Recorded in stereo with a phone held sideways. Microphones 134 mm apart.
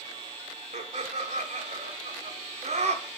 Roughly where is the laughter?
Right.